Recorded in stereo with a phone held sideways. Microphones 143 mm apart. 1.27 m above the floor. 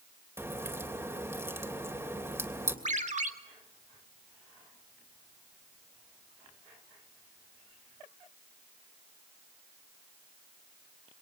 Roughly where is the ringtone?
Right.